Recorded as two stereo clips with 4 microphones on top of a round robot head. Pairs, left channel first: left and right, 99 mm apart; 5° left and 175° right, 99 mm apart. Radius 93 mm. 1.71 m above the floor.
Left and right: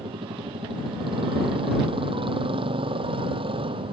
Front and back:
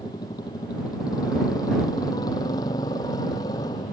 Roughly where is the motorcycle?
Ahead right.